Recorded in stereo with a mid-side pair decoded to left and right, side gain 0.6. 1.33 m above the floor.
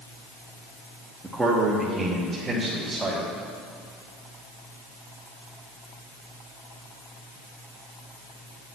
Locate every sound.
1.2 s a man speaking: 15° right, 1.2 m; by 3.3 s 35° right, 3 m